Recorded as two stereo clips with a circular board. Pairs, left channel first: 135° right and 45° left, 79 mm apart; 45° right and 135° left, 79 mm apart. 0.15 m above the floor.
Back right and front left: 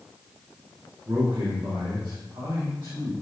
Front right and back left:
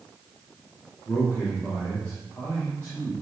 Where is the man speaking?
15° left, 4.5 m.